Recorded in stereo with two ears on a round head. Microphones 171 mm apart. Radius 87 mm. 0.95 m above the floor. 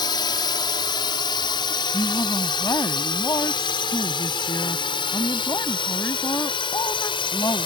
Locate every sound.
0.0 s a drone: 25° left (ahead or behind)
1.9 s a woman speaking: 15° left (ahead or behind)